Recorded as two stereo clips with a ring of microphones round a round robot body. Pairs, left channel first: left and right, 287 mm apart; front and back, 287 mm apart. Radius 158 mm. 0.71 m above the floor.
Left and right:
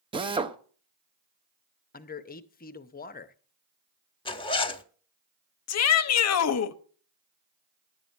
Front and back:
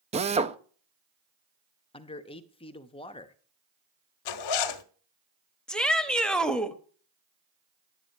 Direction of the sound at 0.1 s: 140° right.